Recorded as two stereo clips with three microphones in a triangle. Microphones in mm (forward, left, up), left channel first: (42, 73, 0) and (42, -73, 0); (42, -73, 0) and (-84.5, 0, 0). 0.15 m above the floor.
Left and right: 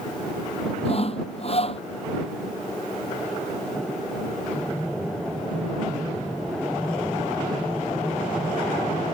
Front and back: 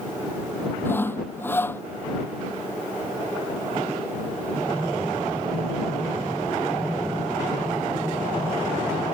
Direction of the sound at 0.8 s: 45° left.